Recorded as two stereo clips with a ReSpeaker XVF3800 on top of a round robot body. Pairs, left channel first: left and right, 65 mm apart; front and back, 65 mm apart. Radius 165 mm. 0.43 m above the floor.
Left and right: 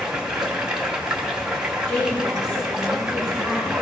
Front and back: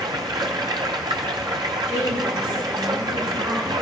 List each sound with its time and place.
0.0 s running water: 170° right, 0.9 m
1.9 s a woman speaking: 160° left, 7.5 m